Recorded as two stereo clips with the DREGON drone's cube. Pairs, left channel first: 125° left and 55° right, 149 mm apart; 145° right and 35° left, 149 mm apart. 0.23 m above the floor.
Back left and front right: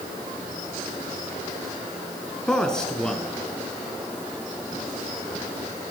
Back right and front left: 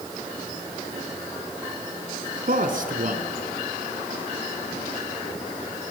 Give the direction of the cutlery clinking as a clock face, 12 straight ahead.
No cutlery clinking in this recording.